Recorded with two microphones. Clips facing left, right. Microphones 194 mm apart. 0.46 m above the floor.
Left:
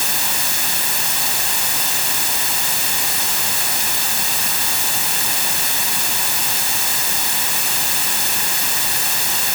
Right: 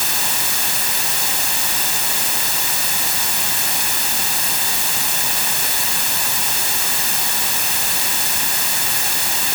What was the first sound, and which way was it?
Only background noise.